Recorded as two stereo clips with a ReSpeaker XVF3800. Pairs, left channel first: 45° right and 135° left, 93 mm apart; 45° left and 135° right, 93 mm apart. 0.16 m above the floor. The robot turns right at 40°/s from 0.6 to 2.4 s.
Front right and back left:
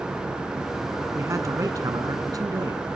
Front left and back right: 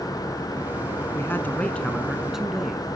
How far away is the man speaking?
About 1.4 m.